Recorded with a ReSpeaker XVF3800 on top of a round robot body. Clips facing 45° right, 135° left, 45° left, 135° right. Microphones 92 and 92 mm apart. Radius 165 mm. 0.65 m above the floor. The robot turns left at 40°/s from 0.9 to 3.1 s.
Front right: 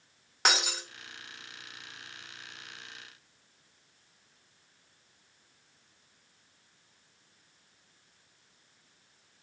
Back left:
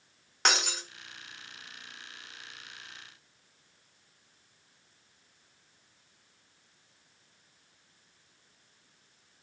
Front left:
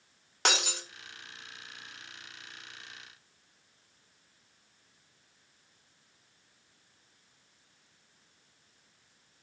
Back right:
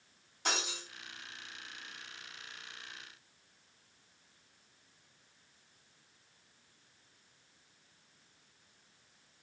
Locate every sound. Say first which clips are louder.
0.5 s breaking glass: even, front left 6 dB; 40° left, 1.9 m